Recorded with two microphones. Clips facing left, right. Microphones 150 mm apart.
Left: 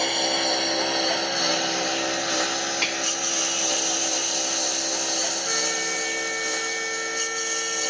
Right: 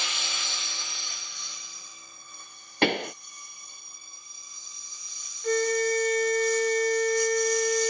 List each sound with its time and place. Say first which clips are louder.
0.0 s a lawn mower: left 15 dB; 55° left (ahead or behind); by 7.9 s 70° left (ahead or behind)
2.8 s a pop: right 5 dB; 60° right (ahead or behind)
5.4 s a flute: right 6 dB; 40° right (ahead or behind)